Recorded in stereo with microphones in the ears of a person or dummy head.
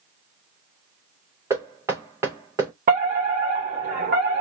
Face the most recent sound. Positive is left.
turn(degrees=-40)  # may be behind; listen again after turning